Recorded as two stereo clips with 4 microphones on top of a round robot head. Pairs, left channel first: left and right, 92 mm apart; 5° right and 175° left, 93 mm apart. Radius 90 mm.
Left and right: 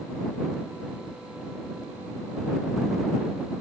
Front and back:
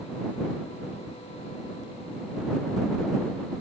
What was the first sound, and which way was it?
Only background noise.